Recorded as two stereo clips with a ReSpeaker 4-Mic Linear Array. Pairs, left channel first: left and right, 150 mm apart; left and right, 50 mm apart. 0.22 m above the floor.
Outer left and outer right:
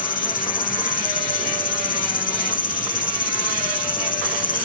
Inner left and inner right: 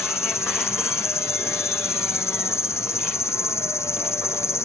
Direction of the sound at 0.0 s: 75° left (ahead or behind).